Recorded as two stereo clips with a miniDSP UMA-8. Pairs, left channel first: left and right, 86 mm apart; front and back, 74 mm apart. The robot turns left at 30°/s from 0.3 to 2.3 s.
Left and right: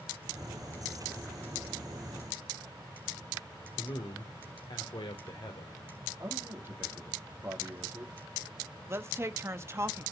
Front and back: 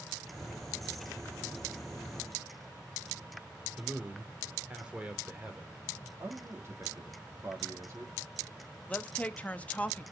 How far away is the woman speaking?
About 0.9 m.